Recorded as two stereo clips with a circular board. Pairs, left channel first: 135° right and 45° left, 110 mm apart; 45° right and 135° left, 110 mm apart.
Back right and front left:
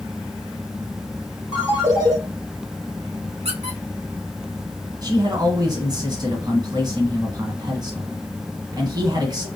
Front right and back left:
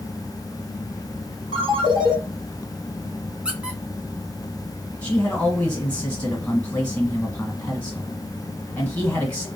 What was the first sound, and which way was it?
A ringtone, 95° left.